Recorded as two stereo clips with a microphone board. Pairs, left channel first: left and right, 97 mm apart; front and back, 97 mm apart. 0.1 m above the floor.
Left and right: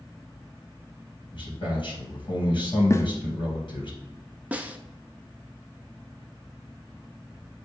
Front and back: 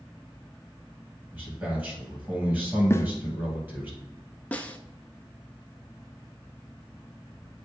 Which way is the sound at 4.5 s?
50° right.